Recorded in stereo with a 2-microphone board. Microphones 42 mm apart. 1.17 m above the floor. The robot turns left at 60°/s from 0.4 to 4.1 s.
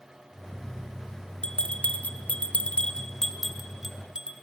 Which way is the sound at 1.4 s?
25° left (ahead or behind).